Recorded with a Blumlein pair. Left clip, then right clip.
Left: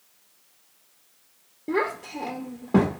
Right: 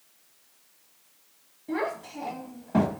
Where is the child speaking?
40° left, 0.7 m.